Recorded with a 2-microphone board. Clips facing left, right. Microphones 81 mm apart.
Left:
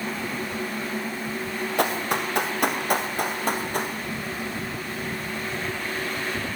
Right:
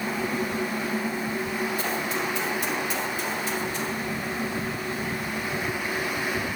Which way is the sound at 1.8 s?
65° left (ahead or behind).